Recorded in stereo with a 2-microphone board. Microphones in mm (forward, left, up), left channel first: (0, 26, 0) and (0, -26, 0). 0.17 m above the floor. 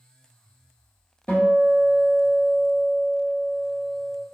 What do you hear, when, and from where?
1.3 s a guitar: 30° left (ahead or behind), 1.3 m